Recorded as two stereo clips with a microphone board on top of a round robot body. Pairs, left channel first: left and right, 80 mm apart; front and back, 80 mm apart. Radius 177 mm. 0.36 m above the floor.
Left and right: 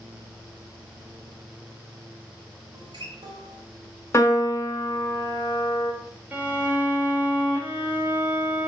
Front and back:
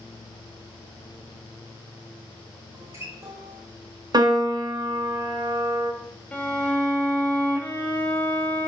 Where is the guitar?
120° right, 1.0 m.